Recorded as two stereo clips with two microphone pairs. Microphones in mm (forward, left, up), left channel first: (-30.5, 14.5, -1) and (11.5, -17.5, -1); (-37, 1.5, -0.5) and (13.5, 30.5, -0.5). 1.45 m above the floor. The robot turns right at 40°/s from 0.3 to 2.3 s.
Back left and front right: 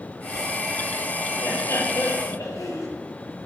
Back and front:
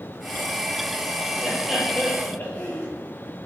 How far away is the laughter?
About 3.5 m.